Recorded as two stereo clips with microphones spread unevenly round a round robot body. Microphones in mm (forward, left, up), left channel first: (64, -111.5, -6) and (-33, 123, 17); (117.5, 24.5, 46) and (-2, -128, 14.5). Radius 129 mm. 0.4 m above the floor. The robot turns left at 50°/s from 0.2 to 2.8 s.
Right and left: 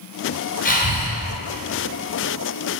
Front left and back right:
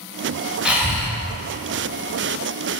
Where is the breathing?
60° right, 1.5 m; by 1.1 s 80° right, 1.5 m.